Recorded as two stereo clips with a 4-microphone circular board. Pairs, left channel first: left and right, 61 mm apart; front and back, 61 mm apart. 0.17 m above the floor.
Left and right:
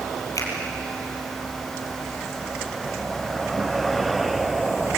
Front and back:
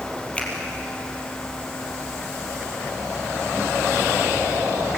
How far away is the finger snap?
About 5 m.